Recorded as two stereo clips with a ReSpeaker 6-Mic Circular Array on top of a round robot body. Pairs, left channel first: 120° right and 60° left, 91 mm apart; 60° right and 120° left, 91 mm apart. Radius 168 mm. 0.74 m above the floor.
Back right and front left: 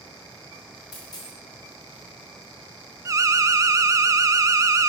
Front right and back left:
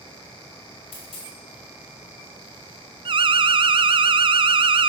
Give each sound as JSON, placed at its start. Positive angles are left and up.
{"t": 0.9, "sound": "a dropped coin", "azimuth_deg": -75, "distance_m": 1.5}
{"t": 3.0, "sound": "an alarm", "azimuth_deg": 110, "distance_m": 0.5}